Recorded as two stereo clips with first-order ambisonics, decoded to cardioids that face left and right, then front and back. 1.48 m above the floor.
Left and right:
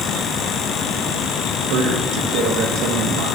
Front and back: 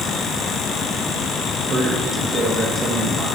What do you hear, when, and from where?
1.7 s a man speaking: 115° right, 2.0 m